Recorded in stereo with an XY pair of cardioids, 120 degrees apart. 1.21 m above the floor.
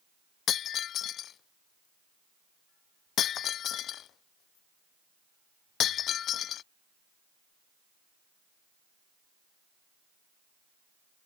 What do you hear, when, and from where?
0.5 s breaking glass: 60° left